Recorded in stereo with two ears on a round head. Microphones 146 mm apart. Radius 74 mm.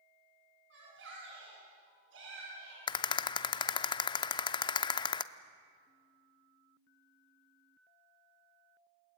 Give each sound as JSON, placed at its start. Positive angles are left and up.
{"t": 0.7, "sound": "a shout", "side_deg": -80, "distance_m": 8.5}
{"t": 2.9, "sound": "a rattle", "side_deg": 25, "distance_m": 0.6}